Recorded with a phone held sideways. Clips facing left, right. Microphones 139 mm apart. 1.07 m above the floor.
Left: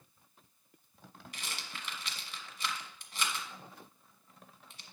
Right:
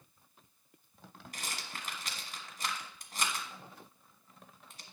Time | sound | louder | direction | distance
1.3 | a rattle | right 2 dB | 45° right (ahead or behind) | 1.3 m